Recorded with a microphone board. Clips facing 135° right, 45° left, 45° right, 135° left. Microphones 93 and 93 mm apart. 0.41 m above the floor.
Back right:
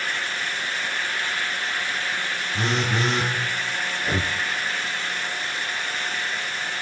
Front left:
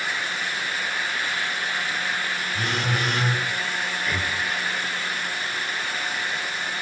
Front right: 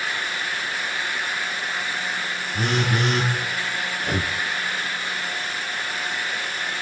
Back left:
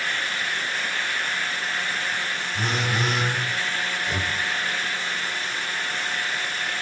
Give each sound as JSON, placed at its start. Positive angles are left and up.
{"t": 2.5, "sound": "a phone buzzing", "azimuth_deg": -70, "distance_m": 6.5}
{"t": 4.0, "sound": "breathing", "azimuth_deg": -80, "distance_m": 1.4}